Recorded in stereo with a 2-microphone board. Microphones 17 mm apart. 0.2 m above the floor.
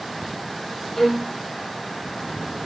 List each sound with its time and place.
1.0 s a violin: 15° left (ahead or behind), 2.5 m